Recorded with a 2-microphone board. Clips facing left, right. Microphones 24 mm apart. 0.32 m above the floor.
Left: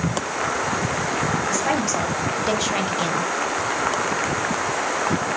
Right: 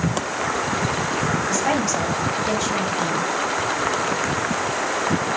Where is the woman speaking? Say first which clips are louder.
Right 1 dB; 10° right (ahead or behind), 1.8 m; by 3.3 s 40° left (ahead or behind), 1.5 m.